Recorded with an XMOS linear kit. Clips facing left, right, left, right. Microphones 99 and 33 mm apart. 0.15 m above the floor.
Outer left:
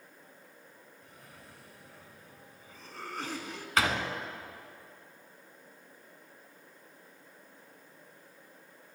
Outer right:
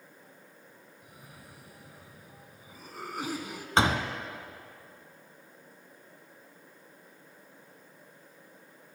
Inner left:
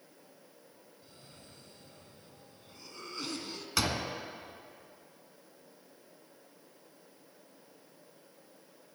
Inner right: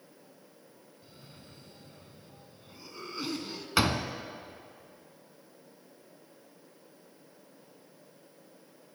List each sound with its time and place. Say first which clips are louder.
1.0 s a cough: outer right 2 dB, inner right 3 dB; 10° right (ahead or behind), 1.5 m
3.8 s a door slam: outer right 4 dB, inner right 5 dB; 25° right (ahead or behind), 1.0 m